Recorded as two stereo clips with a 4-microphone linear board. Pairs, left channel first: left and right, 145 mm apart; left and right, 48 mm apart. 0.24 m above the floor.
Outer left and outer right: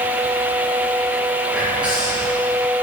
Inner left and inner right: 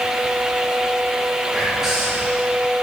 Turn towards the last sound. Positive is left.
turn(degrees=-10)  # may be behind; listen again after turning